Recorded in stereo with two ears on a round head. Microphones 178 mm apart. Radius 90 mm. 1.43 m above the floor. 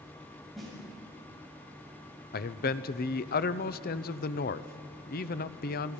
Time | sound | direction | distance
0.6 | a snare drum | centre (ahead or behind) | 7 m
2.3 | a man speaking | 50° left (ahead or behind) | 0.7 m